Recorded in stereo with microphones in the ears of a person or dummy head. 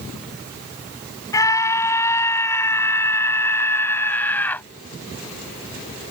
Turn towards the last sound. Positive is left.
turn(degrees=10)  # may be behind; listen again after turning